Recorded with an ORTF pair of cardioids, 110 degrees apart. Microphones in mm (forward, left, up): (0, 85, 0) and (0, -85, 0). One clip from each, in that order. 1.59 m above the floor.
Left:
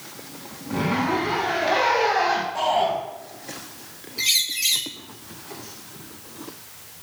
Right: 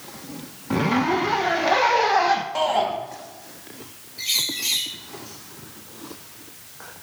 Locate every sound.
0.7 s a zipper: 45° right, 1.6 m
2.5 s a shout: 70° right, 3.5 m
4.2 s a bird: 40° left, 1.8 m